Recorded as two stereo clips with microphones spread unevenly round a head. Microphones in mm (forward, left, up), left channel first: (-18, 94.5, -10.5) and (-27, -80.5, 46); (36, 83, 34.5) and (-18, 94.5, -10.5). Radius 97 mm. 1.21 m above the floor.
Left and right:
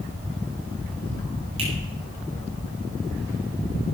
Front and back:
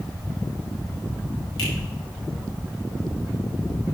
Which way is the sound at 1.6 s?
30° right.